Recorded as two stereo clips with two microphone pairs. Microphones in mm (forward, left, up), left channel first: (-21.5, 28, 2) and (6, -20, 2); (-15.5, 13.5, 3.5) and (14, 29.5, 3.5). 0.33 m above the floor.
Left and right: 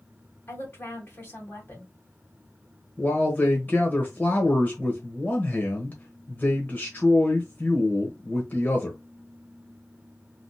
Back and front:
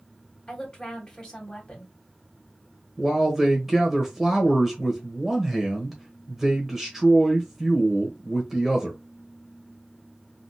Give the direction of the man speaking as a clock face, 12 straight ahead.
9 o'clock.